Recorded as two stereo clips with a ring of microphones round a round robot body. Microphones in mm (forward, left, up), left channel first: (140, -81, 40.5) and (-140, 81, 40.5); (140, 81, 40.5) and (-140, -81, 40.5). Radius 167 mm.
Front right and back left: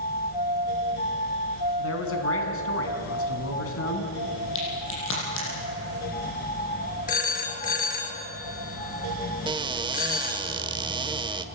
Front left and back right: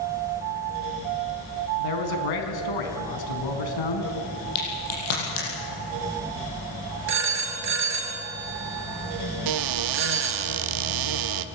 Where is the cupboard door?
135° right, 0.9 m.